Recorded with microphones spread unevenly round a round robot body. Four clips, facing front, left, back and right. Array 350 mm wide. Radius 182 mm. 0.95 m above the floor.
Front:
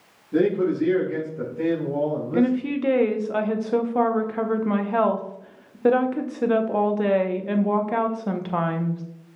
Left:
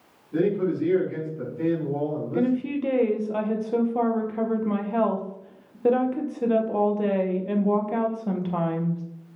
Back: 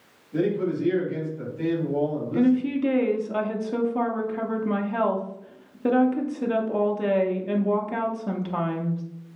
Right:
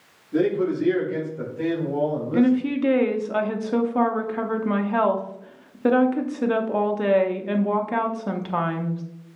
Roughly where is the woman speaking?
Ahead right.